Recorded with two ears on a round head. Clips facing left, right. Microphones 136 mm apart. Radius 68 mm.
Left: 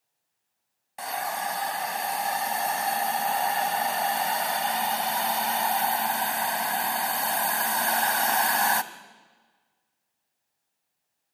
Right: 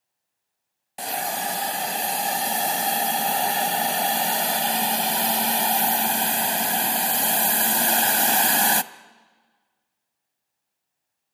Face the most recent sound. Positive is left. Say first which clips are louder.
# right 2 dB
turn(degrees=-35)  # may be behind; listen again after turning